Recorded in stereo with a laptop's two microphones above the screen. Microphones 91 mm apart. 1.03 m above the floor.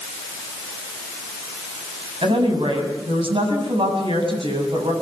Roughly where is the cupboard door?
I don't hear a cupboard door.